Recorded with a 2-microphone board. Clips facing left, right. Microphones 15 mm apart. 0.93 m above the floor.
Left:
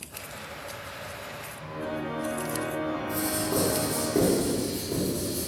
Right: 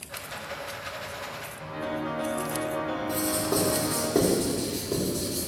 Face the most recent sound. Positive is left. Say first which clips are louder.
# right 3 dB
turn(degrees=-40)  # may be behind; listen again after turning